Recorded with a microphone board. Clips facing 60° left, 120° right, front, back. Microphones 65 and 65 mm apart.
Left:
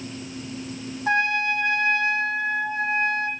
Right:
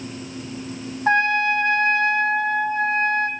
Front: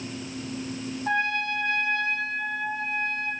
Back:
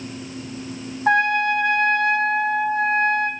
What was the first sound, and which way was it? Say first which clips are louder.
A trumpet: right 4 dB, back 9 dB; 170° right.